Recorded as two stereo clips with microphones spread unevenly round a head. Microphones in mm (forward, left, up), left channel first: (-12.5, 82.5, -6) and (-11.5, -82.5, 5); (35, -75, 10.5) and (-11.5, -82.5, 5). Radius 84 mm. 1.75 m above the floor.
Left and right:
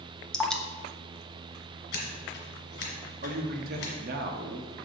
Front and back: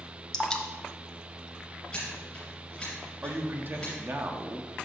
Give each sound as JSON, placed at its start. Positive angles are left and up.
{"t": 0.3, "sound": "dripping", "azimuth_deg": 0, "distance_m": 0.6}
{"t": 1.9, "sound": "scissors", "azimuth_deg": 90, "distance_m": 2.5}
{"t": 3.2, "sound": "a man speaking", "azimuth_deg": -120, "distance_m": 1.1}